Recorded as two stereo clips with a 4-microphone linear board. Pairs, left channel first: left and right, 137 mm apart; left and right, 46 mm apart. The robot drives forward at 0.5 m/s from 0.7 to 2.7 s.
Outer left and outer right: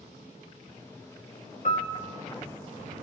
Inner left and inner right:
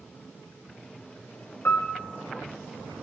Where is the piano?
60° left (ahead or behind), 1.2 m; by 1.9 s 55° left (ahead or behind), 1.3 m.